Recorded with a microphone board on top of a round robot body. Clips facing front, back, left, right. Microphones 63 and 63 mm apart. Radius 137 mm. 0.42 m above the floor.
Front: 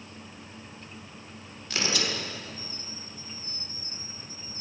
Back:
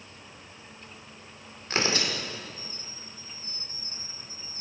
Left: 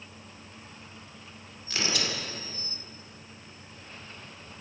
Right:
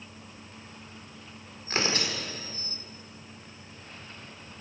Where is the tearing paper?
135° right, 2 m.